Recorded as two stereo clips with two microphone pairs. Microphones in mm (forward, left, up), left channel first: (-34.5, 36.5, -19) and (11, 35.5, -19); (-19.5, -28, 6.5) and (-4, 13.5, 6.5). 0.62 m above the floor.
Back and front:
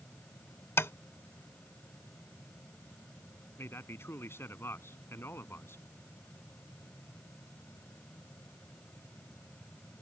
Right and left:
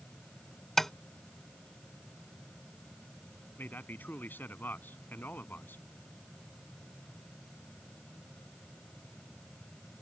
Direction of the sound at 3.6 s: 155° right.